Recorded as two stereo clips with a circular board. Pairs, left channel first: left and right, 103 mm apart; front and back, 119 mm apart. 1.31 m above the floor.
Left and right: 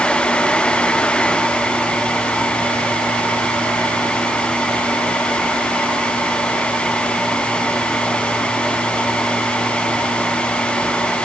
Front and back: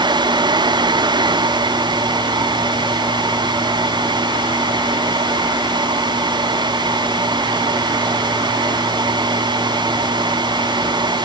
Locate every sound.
Only background noise.